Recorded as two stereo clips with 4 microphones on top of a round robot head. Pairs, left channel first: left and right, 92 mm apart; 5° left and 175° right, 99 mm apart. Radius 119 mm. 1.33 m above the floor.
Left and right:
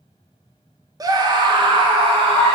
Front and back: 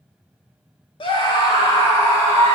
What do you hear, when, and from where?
1.0 s a scream: 40° right, 2 m; by 2.5 s 70° right, 3 m